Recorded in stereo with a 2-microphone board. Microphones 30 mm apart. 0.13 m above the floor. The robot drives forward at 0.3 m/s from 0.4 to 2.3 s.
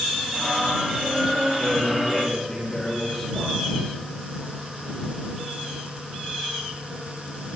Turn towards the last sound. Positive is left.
turn(degrees=15)  # may be behind; listen again after turning